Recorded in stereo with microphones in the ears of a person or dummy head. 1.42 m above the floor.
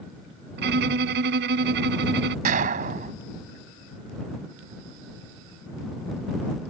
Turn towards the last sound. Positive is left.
turn(degrees=-35)  # may be behind; listen again after turning